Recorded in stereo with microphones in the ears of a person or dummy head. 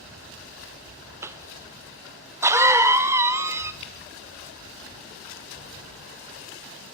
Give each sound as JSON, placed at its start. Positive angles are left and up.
{"t": 1.2, "sound": "a cough", "side_deg": -10, "distance_m": 1.0}
{"t": 3.8, "sound": "dripping", "side_deg": 30, "distance_m": 2.0}